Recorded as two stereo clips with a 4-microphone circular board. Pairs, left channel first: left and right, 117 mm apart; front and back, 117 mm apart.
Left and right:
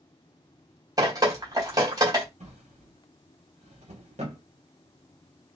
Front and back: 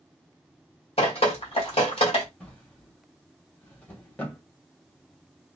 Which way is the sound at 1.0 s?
35° right.